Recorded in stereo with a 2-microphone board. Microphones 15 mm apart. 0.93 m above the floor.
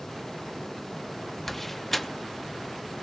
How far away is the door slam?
About 0.7 m.